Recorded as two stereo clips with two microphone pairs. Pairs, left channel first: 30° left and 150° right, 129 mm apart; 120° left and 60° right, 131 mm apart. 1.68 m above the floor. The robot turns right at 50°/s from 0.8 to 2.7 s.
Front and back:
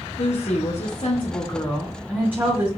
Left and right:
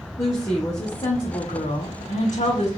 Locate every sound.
0.2 s a woman speaking: 60° left, 1.8 m; by 2.7 s 155° left, 1.8 m